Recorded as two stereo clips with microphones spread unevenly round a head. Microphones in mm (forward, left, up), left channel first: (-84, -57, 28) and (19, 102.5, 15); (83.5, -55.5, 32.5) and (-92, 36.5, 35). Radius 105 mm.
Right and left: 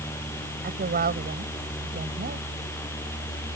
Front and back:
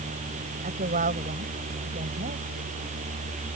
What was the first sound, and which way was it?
A woman speaking, 100° left.